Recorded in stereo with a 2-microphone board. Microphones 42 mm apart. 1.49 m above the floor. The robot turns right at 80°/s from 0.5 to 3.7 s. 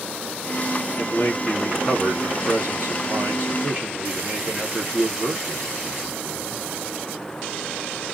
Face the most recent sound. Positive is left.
turn(degrees=-35)